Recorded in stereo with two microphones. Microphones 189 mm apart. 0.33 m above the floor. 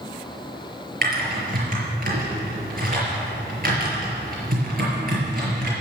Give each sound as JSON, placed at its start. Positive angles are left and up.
{"t": 1.0, "sound": "typing on a keyboard", "side_deg": -50, "distance_m": 5.5}